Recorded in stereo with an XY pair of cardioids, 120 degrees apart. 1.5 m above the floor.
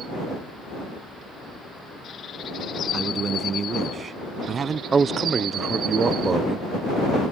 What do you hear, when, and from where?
2.9 s a man speaking: 35° right
4.9 s a man speaking: 30° right